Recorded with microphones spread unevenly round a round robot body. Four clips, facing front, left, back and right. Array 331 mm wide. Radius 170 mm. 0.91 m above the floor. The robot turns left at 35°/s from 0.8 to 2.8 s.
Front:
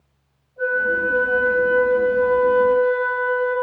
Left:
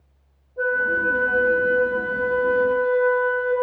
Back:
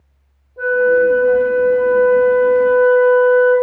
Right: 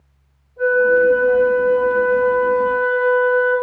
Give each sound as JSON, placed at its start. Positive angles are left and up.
{"t": 0.6, "sound": "a flute", "azimuth_deg": 160, "distance_m": 1.7}